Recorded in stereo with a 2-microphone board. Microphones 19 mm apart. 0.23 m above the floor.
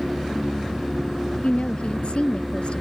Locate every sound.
1.4 s a woman speaking: 75° left (ahead or behind)